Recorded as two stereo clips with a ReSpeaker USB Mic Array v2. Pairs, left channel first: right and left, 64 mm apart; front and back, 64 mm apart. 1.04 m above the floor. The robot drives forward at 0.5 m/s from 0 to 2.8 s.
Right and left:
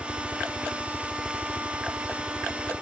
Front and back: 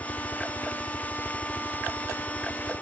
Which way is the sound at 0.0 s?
40° right.